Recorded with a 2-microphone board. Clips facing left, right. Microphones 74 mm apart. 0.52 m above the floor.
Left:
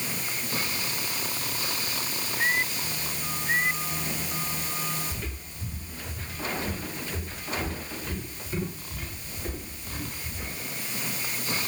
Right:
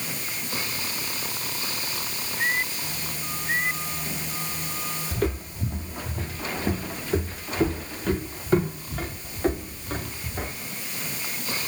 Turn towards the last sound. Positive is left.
turn(degrees=-65)  # may be behind; listen again after turning